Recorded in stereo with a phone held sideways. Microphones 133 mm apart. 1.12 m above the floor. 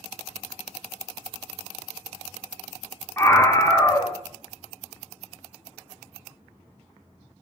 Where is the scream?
15° left (ahead or behind), 3.5 m.